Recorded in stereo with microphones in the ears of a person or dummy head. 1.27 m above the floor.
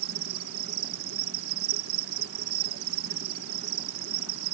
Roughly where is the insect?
Right.